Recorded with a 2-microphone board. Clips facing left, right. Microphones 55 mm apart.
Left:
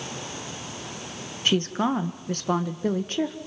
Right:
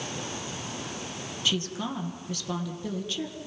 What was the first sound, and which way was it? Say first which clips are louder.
A woman speaking: left 7 dB; 40° left (ahead or behind).